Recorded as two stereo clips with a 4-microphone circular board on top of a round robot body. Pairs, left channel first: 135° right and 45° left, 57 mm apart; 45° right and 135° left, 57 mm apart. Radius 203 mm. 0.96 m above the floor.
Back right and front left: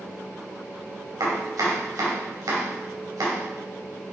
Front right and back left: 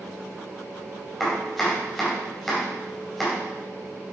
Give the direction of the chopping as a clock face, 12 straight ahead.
11 o'clock.